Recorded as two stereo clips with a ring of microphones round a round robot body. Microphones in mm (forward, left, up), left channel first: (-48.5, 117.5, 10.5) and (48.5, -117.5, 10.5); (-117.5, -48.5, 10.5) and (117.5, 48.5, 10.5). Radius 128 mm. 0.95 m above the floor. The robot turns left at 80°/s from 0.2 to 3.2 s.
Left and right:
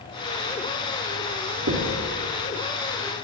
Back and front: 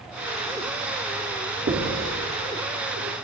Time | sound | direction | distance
1.7 | knocking | 30° right | 1.9 m